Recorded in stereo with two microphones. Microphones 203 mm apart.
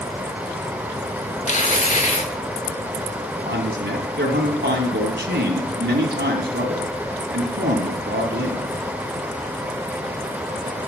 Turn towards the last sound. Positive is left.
turn(degrees=-60)  # may be behind; listen again after turning